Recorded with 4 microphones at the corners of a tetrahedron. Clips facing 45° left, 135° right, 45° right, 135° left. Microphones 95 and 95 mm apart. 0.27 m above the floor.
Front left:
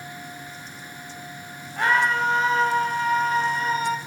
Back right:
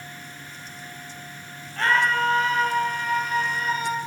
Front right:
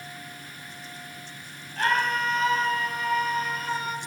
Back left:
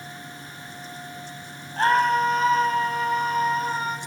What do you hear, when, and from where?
1.8 s a scream: 110° left, 1.8 m; by 4.0 s 90° left, 3 m